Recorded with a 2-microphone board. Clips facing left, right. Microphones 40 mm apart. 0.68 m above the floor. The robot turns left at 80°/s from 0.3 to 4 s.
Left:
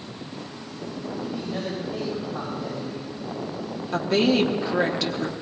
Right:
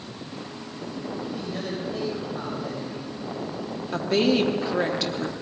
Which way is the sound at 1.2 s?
135° left.